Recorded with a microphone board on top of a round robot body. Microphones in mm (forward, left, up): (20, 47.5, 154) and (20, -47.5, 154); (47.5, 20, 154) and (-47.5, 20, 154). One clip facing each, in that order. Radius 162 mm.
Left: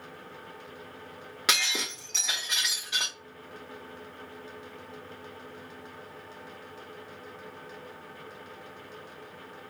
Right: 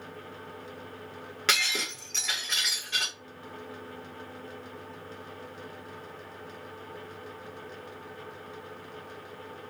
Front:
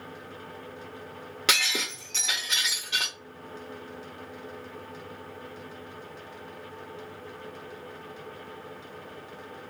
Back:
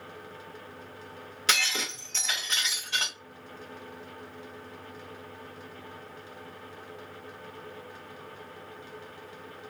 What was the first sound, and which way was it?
Breaking glass, 15° left.